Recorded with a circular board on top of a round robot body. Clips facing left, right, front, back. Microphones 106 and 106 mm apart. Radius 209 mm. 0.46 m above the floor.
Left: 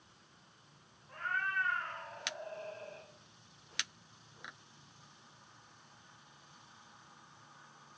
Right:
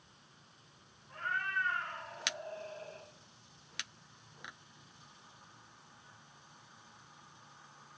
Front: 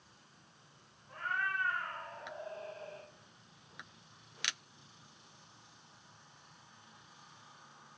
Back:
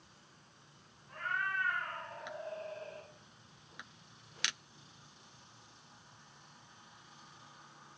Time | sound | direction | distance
1.1 | a cat meowing | 50° left | 2.5 m